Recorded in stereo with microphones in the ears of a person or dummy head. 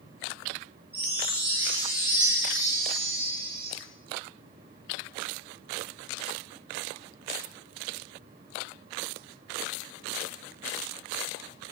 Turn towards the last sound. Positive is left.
turn(degrees=-10)  # may be behind; listen again after turning